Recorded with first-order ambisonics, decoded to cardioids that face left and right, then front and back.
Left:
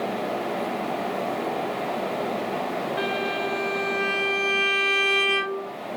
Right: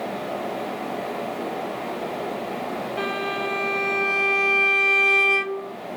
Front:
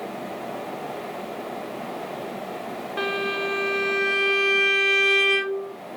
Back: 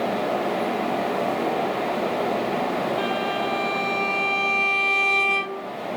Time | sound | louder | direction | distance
3.0 | a violin | right 1 dB, back 1 dB | 10° left | 1.6 m